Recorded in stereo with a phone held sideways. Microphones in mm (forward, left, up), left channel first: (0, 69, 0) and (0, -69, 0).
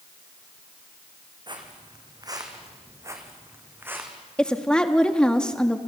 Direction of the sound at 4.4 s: 5° left (ahead or behind).